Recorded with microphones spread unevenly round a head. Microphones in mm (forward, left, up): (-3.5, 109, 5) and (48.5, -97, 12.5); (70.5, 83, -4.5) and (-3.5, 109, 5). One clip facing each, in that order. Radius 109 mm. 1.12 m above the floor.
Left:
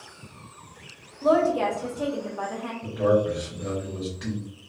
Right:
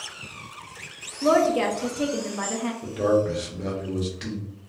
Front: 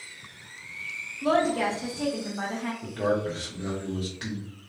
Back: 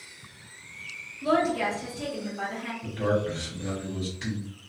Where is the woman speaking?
35° right, 0.6 m.